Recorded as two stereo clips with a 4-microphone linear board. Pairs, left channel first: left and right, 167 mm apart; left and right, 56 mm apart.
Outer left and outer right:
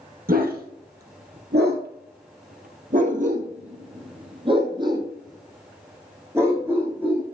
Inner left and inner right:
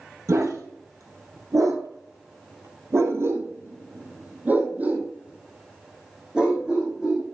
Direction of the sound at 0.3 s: 60° right (ahead or behind).